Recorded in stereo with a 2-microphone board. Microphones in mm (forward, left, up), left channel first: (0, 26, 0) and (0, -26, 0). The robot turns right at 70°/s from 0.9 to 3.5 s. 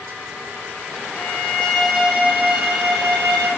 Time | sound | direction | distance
1.1 | a violin | 130° left | 4.5 m